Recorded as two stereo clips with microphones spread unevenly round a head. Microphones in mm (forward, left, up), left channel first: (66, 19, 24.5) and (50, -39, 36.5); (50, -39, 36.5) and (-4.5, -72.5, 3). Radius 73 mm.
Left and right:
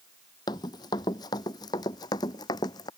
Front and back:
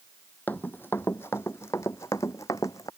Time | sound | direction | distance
0.5 | running footsteps | 90° left | ?